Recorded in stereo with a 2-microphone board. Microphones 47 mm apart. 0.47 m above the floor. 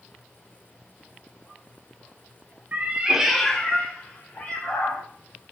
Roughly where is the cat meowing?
Right.